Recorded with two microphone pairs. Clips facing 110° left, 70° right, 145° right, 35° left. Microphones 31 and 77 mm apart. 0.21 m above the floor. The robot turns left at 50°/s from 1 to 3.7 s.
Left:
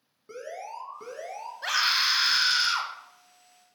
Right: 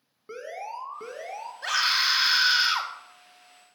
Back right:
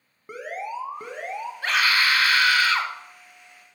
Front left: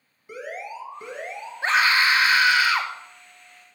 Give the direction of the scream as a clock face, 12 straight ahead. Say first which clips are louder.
Right 1 dB, front left 3 dB; 11 o'clock.